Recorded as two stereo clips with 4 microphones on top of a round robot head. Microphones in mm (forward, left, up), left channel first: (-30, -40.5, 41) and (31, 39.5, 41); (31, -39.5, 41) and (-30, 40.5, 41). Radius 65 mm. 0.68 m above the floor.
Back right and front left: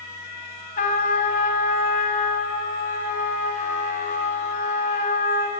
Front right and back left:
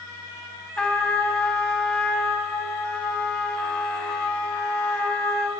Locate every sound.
0.8 s a trumpet: 135° right, 1.8 m